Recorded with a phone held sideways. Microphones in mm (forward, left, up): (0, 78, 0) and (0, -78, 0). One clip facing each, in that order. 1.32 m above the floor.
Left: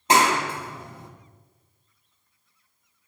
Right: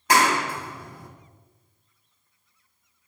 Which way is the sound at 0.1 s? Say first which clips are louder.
Left 1 dB; 25° left (ahead or behind).